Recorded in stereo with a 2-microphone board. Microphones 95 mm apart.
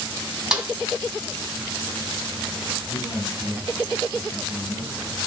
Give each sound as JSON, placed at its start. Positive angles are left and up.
{"t": 0.5, "sound": "a snare drum", "side_deg": -10, "distance_m": 2.5}
{"t": 2.9, "sound": "a man speaking", "side_deg": 20, "distance_m": 3.5}